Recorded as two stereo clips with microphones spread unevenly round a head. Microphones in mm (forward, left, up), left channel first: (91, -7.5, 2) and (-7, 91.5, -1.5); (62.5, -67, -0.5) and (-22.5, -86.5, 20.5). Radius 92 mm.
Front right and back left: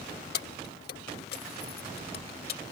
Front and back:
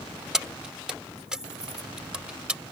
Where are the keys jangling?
80° right; by 2.6 s 90° right.